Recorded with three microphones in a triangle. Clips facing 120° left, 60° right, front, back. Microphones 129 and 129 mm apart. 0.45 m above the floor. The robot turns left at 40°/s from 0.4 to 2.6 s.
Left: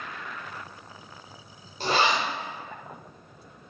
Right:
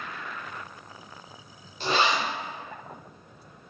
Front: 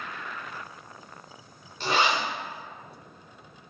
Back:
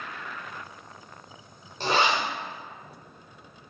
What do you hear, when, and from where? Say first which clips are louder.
1.8 s a zipper: left 1 dB, back 1 dB; 145° left, 1.7 m; by 2.2 s 130° left, 1.7 m